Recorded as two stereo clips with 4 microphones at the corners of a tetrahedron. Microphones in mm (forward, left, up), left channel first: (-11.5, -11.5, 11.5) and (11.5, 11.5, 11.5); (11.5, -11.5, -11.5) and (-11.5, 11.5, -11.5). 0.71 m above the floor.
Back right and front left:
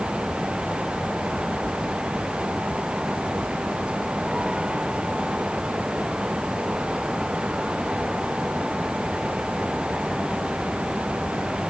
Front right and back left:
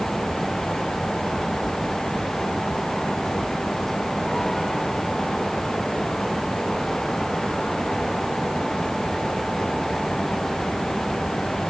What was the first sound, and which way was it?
Only background noise.